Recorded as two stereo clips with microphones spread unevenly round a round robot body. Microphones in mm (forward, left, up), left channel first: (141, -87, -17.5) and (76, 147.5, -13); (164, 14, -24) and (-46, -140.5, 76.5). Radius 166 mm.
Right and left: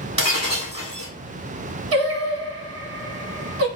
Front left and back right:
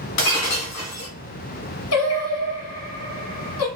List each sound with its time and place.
0.2 s breaking glass: 40° left, 2 m
1.9 s singing: 75° left, 1.2 m